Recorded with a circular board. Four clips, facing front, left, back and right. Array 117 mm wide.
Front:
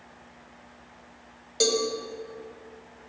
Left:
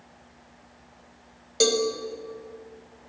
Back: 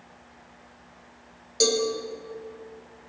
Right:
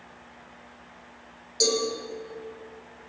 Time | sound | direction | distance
1.6 | a cowbell | 80° left | 1.9 m